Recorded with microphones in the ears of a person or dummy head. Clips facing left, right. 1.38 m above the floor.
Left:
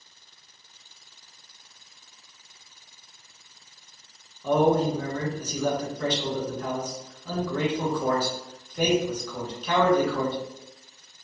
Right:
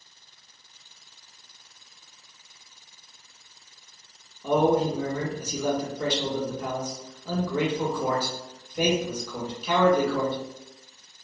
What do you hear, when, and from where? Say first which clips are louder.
4.4 s a man speaking: even; 5° right (ahead or behind), 0.6 m